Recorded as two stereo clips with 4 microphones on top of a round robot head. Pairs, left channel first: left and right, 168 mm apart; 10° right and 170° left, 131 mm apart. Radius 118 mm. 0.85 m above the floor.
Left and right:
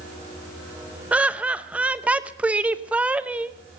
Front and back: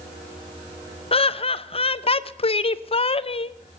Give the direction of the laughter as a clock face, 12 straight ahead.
12 o'clock.